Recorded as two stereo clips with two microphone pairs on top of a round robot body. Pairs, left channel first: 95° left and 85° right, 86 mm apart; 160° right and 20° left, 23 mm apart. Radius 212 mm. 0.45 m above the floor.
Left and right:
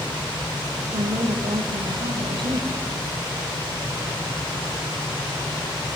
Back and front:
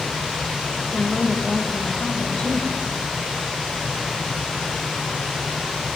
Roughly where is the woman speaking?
Right.